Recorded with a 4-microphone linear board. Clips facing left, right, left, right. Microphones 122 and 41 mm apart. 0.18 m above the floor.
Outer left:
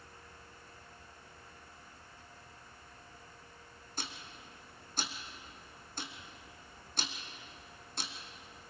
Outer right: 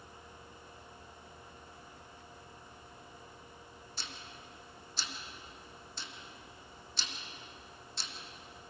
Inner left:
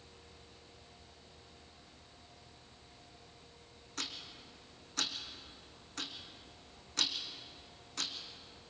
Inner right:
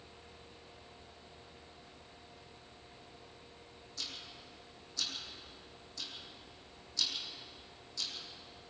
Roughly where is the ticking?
Left.